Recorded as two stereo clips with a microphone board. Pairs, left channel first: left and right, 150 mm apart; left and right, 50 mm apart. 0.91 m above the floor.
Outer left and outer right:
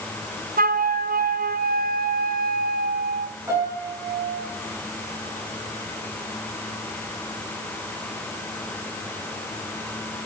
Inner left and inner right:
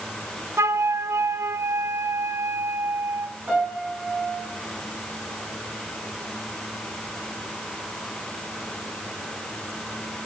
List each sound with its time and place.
0.6 s a flute: 65° right (ahead or behind), 0.6 m
3.5 s a piano: 20° right (ahead or behind), 9 m